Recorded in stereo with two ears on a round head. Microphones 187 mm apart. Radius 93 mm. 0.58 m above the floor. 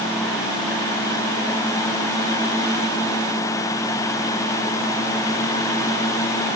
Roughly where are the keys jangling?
No keys jangling in this recording.